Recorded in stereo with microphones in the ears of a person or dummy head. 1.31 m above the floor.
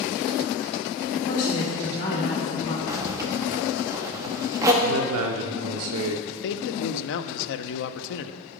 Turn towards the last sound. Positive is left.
turn(degrees=65)  # may be behind; listen again after turning